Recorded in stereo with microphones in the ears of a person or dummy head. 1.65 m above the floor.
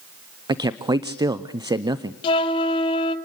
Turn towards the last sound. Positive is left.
turn(degrees=30)  # may be behind; listen again after turning